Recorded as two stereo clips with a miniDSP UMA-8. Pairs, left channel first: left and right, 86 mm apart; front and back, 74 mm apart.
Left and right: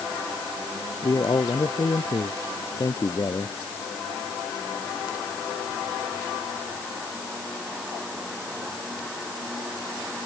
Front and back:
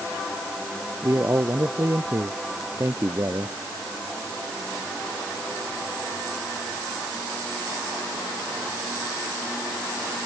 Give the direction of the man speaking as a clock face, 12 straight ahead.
8 o'clock.